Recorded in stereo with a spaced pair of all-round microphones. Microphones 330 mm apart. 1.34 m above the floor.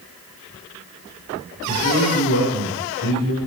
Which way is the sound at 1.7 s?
75° left (ahead or behind).